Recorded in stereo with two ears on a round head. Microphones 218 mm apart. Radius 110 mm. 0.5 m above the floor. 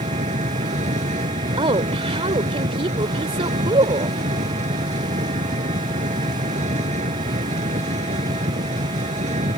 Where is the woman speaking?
25° right (ahead or behind).